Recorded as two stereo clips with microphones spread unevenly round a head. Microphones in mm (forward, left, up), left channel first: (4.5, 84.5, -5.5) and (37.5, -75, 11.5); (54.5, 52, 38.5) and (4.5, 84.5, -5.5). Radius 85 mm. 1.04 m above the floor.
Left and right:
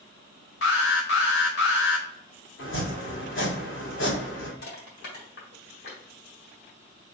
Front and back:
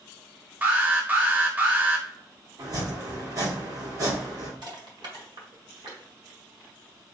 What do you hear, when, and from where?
0.6 s an alarm: 80° left, 1.3 m
2.6 s chopping: 125° left, 2 m
4.6 s crushing: 140° left, 1.7 m